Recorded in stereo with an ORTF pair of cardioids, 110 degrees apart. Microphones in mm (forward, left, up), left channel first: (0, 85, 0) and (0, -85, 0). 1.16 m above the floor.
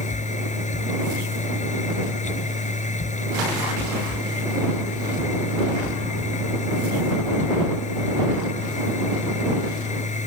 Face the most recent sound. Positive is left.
turn(degrees=45)